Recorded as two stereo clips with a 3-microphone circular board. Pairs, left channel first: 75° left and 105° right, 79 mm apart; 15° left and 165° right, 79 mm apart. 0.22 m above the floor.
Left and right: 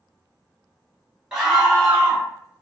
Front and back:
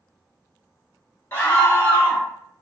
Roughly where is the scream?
Ahead right.